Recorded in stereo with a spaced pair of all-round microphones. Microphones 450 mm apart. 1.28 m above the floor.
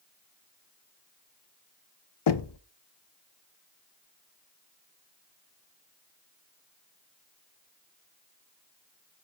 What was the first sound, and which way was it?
Knocking, 65° left (ahead or behind).